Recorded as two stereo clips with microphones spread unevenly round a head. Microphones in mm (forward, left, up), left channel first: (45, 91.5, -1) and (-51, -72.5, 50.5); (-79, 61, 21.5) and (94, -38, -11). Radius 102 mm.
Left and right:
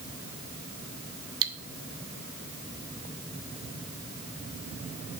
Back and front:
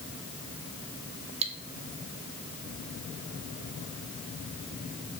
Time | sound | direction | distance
1.4 | cutlery clinking | 95° right | 0.6 m